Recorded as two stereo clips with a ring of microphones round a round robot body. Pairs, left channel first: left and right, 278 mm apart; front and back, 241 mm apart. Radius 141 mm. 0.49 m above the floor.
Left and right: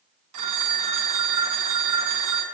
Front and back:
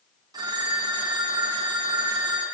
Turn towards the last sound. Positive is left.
turn(degrees=-105)